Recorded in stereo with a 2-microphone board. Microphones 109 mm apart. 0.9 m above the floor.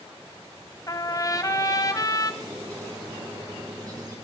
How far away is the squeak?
About 3.5 m.